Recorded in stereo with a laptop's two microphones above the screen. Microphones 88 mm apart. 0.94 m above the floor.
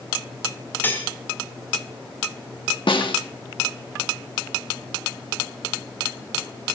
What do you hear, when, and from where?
0.8 s cutlery clinking: 25° left (ahead or behind), 1.6 m
2.9 s a snare drum: 75° left (ahead or behind), 1.5 m